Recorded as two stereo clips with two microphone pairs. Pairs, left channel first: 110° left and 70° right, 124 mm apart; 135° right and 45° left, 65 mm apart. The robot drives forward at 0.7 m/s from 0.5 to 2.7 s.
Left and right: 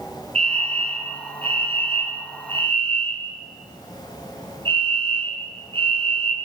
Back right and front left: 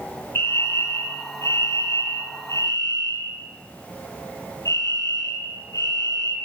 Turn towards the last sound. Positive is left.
turn(degrees=-110)